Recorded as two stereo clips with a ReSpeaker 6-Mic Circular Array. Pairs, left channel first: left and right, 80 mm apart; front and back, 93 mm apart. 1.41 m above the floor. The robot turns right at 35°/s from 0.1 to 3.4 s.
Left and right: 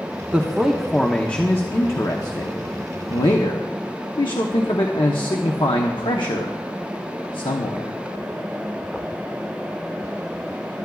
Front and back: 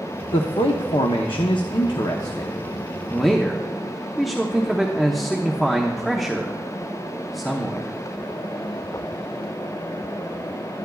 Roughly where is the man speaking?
Ahead.